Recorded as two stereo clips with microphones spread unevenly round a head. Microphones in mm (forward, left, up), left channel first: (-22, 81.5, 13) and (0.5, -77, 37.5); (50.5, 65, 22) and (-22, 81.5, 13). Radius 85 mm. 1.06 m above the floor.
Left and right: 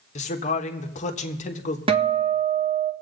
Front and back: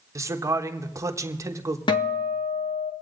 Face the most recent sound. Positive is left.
turn(degrees=-25)